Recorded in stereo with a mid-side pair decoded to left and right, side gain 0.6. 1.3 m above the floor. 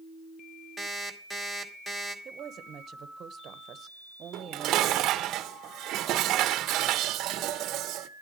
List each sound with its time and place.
0.8 s an alarm clock: 5° left, 2 m
2.2 s a woman speaking: 45° right, 1.2 m
4.3 s dishes clattering: 60° right, 0.8 m